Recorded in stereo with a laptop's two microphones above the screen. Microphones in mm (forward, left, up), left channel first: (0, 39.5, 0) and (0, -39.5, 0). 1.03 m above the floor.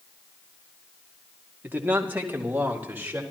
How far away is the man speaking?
About 2 m.